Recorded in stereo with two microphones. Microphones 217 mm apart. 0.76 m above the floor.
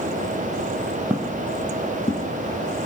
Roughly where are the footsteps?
Centre.